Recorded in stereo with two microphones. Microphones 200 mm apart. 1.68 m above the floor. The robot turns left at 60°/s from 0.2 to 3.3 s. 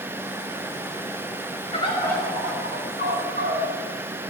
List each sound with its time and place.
1.7 s a bird: 30° left, 5.5 m; by 3.6 s 65° right, 5.5 m